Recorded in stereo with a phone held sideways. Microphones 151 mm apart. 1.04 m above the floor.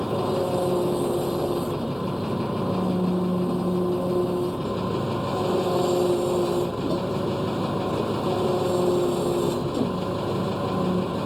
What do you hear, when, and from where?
0.0 s an engine running: 5° right (ahead or behind)